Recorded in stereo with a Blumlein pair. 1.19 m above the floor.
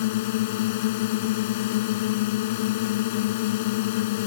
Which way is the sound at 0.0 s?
50° left.